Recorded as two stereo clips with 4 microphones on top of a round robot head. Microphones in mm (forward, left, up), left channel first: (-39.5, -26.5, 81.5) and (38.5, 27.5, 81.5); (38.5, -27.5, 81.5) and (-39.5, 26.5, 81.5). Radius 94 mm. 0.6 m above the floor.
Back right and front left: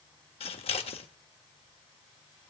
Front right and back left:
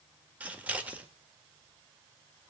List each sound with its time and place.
0.4 s scissors: 140° right, 1.5 m